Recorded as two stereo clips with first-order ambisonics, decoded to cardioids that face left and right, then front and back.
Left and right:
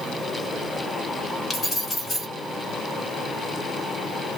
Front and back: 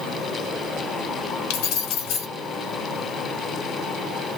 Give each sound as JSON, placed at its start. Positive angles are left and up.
{"t": 1.5, "sound": "keys jangling", "azimuth_deg": 10, "distance_m": 1.6}